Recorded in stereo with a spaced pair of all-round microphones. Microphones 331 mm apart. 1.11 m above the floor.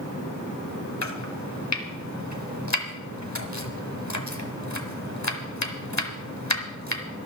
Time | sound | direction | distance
1.0 | chopping | 55° left (ahead or behind) | 1.5 m